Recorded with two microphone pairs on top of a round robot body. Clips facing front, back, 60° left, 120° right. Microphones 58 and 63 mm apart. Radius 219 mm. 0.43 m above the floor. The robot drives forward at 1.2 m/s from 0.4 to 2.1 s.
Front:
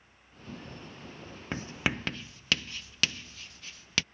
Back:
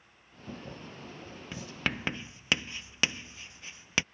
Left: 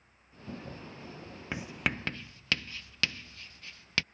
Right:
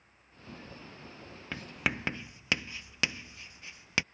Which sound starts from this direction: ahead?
Writing, at 1.5 s.